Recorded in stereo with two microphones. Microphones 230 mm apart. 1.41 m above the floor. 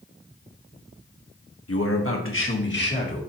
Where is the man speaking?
80° left, 1.3 m; by 3.2 s 45° left (ahead or behind), 2.5 m.